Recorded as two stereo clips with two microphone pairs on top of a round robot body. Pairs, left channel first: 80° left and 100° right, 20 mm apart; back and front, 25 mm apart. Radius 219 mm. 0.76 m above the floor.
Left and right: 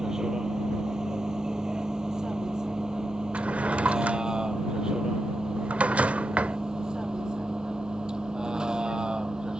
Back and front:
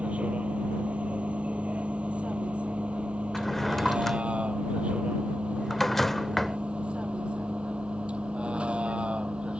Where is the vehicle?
35° right; by 9.6 s 45° right.